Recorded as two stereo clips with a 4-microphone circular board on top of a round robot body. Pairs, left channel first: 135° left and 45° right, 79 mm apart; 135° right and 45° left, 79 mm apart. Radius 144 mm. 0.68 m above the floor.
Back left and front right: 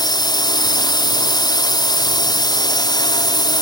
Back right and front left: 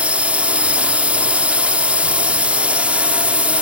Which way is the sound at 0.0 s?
120° left.